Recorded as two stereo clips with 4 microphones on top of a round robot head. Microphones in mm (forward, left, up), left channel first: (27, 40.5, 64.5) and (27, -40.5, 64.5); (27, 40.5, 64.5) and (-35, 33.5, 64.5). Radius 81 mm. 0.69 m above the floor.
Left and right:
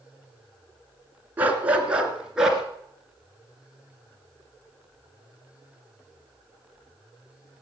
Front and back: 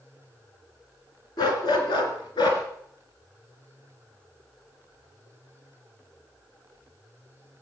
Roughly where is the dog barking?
Ahead.